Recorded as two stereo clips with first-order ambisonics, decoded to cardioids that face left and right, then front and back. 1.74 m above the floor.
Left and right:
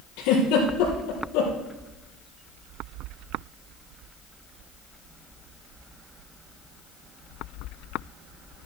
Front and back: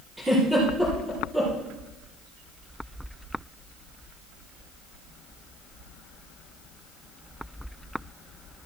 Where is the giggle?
95° left, 4.5 m.